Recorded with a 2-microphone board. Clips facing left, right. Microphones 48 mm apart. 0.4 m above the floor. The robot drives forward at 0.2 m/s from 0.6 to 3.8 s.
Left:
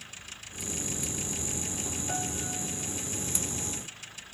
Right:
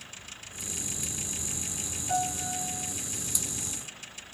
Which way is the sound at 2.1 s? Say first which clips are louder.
Right 8 dB; 30° left (ahead or behind).